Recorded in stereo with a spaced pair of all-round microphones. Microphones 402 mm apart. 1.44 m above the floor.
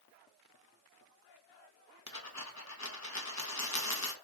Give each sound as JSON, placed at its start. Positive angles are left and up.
{"t": 2.1, "sound": "a dropped coin", "side_deg": 40, "distance_m": 0.9}